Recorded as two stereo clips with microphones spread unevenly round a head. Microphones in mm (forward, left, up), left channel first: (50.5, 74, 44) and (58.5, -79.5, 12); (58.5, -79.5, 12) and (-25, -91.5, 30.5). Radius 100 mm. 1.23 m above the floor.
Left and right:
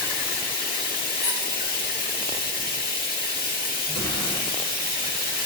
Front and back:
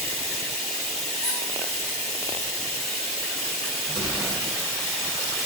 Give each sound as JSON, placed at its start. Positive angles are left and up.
{"t": 0.0, "sound": "running water", "azimuth_deg": 85, "distance_m": 0.9}
{"t": 1.2, "sound": "a squeak", "azimuth_deg": 75, "distance_m": 1.4}
{"t": 3.9, "sound": "an explosion", "azimuth_deg": 165, "distance_m": 2.0}